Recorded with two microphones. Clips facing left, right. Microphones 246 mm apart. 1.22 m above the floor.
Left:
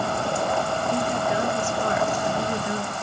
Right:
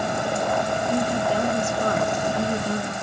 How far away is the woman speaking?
About 1.4 m.